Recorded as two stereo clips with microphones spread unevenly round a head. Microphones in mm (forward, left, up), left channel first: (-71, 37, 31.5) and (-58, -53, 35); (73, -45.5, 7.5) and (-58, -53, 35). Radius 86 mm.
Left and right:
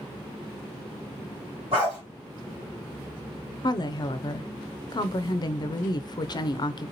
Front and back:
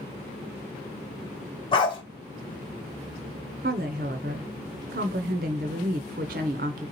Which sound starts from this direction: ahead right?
A dog barking, at 1.7 s.